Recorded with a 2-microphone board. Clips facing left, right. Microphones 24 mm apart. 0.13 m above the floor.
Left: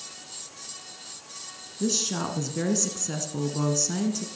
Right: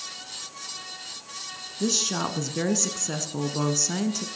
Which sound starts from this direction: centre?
A woman speaking, at 1.8 s.